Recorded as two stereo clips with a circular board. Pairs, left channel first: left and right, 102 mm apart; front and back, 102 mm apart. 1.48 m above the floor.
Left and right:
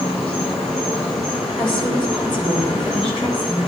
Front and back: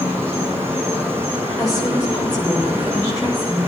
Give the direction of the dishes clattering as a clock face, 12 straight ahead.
No dishes clattering in this recording.